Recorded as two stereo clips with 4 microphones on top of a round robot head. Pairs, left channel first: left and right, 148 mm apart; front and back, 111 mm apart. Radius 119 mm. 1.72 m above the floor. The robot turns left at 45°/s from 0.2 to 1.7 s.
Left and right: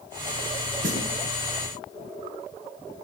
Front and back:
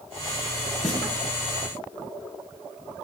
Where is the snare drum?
85° right, 3 m; by 1.1 s 95° right, 3 m.